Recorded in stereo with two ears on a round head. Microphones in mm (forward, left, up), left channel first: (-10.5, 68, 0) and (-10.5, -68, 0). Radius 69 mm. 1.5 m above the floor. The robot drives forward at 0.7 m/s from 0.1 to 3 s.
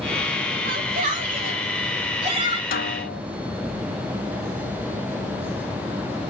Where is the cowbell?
No cowbell in this recording.